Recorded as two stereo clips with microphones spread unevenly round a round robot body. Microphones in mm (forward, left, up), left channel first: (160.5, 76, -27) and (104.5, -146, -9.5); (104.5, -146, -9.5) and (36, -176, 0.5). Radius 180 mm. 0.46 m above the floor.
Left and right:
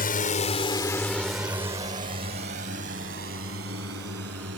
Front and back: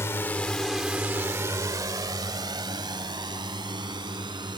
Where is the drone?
60° left; by 4.6 s 155° right.